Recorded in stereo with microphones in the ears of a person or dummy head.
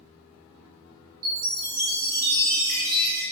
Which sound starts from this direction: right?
A chime, at 1.2 s.